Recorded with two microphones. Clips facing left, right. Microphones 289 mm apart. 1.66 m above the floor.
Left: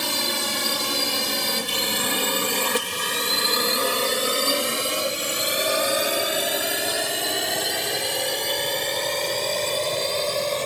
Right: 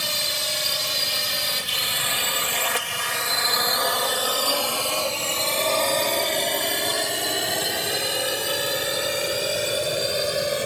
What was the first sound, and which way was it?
A drone, 70° left (ahead or behind).